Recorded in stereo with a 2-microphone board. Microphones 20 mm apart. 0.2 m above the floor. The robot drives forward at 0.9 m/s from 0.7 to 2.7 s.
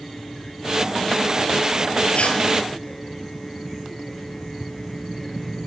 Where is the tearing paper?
70° left (ahead or behind), 2 m; by 2.4 s 65° left (ahead or behind), 2 m.